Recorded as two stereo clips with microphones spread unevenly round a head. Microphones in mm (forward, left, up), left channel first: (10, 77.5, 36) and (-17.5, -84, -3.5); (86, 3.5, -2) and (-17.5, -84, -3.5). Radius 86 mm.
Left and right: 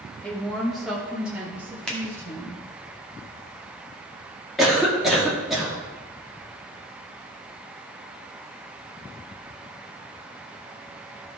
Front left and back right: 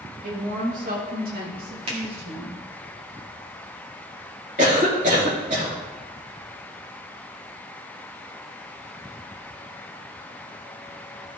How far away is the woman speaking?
About 2 m.